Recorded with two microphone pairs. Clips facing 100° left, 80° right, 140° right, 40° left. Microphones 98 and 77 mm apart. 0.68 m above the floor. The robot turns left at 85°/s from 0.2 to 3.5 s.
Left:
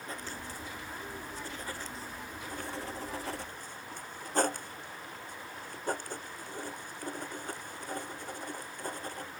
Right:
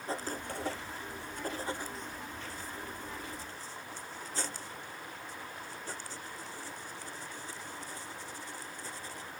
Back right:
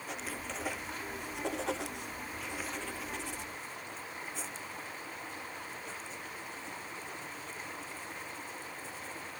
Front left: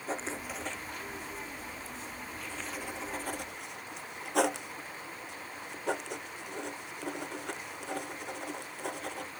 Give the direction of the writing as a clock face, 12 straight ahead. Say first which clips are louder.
Right 6 dB, front left 5 dB; 1 o'clock.